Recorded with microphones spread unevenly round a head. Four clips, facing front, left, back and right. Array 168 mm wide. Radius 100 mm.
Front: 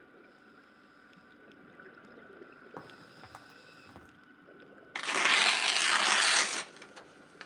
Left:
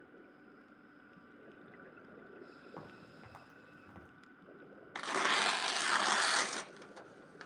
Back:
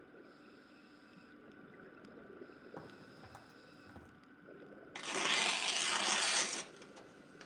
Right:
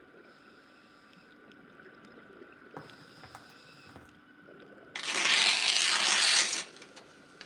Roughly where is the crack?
Ahead.